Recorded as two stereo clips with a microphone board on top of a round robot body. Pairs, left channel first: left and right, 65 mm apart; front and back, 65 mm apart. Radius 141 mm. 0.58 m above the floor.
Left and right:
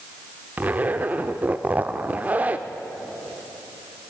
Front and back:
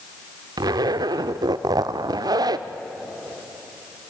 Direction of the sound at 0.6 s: 160° right.